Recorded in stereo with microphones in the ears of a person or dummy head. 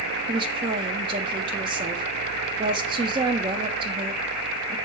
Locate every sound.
0.3 s a woman speaking: 25° right (ahead or behind), 0.8 m